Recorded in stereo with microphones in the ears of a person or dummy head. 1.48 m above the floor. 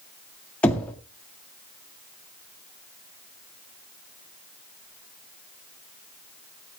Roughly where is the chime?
I don't hear a chime.